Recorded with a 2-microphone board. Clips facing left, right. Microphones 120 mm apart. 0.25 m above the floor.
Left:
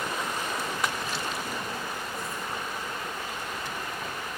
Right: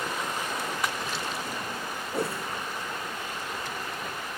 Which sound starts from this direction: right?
A whoosh, at 2.1 s.